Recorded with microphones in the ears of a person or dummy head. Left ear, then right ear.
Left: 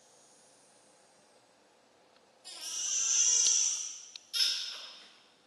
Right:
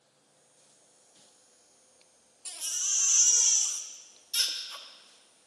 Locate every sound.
2.5 s a baby crying: 40° right (ahead or behind), 0.7 m